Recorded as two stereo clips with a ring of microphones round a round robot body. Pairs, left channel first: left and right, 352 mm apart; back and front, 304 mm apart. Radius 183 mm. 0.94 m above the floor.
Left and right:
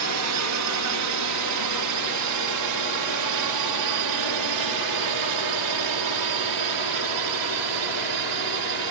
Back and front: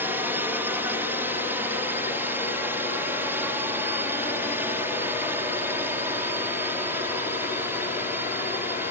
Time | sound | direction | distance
0.0 | a drone | 80° right | ?